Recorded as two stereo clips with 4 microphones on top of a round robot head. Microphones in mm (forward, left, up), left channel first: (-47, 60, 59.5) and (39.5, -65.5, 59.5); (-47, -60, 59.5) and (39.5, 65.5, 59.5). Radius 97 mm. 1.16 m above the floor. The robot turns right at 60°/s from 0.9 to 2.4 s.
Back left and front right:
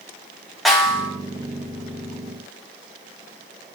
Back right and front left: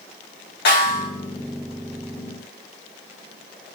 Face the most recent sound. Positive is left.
turn(degrees=-55)